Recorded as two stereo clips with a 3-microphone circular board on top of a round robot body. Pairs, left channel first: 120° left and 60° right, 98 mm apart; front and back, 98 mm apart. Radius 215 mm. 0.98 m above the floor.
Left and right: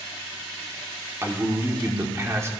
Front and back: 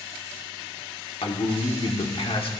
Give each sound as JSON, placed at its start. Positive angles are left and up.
{"t": 1.2, "sound": "a man speaking", "azimuth_deg": 0, "distance_m": 1.3}